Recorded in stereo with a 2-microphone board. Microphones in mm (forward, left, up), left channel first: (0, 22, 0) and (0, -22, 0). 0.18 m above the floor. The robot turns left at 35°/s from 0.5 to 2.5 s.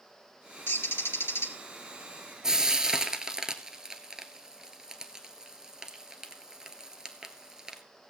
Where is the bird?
120° left, 1.2 m; by 1.5 s 85° left, 1.2 m.